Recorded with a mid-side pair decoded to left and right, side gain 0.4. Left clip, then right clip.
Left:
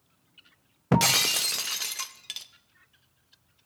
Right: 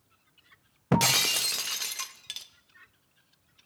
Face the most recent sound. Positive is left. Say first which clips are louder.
# left 1 dB
turn(degrees=10)